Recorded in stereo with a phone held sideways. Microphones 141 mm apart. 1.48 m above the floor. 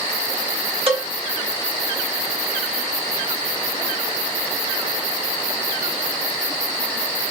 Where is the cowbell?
45° right (ahead or behind), 1.7 m.